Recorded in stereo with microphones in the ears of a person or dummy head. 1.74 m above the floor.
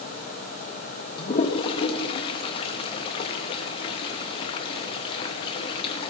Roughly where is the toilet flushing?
Left.